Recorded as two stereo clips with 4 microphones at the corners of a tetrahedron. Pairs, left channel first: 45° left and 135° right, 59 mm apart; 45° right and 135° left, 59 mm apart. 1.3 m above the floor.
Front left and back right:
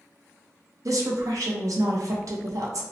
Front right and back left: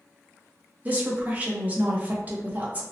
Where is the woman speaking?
160° right, 0.7 m.